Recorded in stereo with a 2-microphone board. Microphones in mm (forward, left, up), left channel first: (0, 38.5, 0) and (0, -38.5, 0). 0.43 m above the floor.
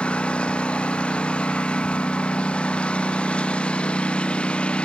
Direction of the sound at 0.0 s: 15° left (ahead or behind).